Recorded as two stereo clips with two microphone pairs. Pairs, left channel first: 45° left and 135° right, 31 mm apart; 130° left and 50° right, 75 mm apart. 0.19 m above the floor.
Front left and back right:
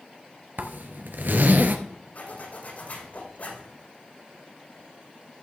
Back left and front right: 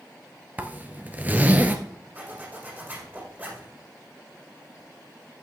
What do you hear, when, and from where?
0.6 s a zipper: 120° right, 1.2 m
2.1 s a zipper: 15° left, 5.5 m